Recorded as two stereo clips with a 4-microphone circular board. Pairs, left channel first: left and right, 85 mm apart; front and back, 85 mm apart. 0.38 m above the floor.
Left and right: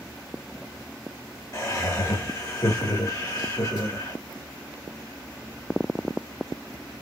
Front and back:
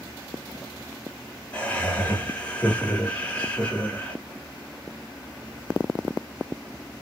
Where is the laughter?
70° left, 1.2 m.